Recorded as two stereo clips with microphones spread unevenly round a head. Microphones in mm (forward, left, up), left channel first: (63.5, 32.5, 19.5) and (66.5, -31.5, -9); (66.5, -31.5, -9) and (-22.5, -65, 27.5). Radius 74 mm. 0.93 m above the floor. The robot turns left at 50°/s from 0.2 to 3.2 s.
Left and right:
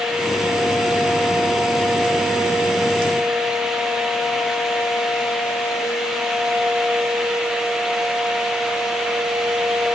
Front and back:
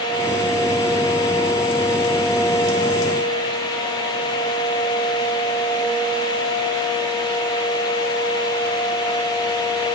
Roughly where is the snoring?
I don't hear snoring.